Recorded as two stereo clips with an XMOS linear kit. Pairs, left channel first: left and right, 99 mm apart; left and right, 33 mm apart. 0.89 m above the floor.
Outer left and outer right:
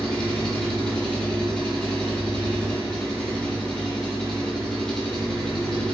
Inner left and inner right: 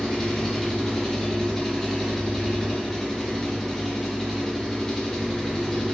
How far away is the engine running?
About 0.8 m.